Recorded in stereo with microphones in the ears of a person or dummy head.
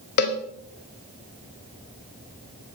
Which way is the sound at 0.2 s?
55° left (ahead or behind).